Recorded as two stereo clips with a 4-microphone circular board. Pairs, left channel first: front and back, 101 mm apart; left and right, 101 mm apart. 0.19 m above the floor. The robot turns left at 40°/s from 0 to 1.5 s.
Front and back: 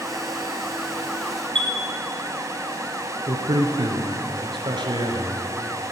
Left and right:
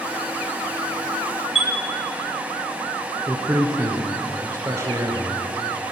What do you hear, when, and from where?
1.6 s a chime: straight behind, 2 m
3.3 s a man speaking: 150° right, 2.5 m